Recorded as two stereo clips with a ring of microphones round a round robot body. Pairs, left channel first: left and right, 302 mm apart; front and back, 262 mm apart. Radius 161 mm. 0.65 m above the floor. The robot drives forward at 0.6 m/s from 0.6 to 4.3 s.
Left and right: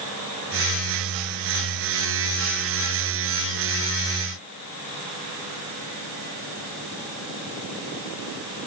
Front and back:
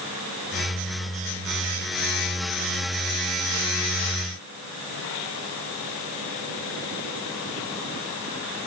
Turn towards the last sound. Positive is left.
No sound to turn to.